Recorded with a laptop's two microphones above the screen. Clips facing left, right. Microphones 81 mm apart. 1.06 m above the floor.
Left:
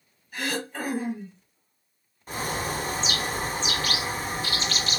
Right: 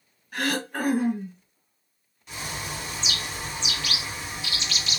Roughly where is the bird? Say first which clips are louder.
Left 6 dB; left.